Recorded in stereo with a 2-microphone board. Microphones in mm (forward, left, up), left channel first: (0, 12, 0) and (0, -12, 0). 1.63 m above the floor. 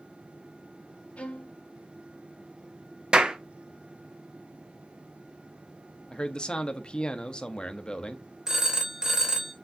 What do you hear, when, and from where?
1.2 s a violin: 65° left (ahead or behind), 0.9 m
3.1 s a clap: 45° right (ahead or behind), 0.8 m
6.1 s a man speaking: 35° left (ahead or behind), 0.8 m
8.5 s a phone ringing: 20° right (ahead or behind), 0.9 m